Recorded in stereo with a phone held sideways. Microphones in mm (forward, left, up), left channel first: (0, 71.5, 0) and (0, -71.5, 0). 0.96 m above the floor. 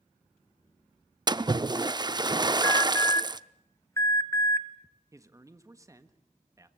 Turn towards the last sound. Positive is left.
turn(degrees=-20)  # may be behind; listen again after turning